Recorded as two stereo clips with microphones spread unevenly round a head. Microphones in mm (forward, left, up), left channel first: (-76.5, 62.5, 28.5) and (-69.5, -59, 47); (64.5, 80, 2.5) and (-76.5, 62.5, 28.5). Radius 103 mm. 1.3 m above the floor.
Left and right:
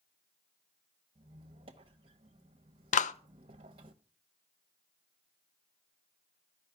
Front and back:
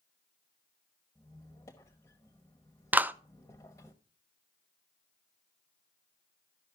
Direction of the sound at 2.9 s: 110° left.